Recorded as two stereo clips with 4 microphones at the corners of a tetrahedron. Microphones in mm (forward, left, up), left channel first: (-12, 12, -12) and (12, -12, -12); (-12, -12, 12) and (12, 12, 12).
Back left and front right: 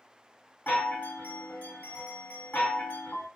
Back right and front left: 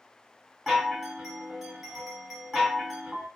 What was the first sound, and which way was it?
A chime, 130° left.